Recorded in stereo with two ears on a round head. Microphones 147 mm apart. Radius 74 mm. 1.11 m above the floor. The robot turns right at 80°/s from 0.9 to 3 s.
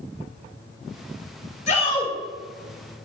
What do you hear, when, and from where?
1.7 s a shout: 130° left, 4.5 m; by 2.1 s 165° left, 4.5 m